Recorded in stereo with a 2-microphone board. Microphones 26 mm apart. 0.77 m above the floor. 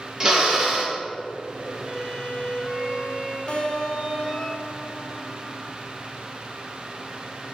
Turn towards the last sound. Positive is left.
turn(degrees=35)  # may be behind; listen again after turning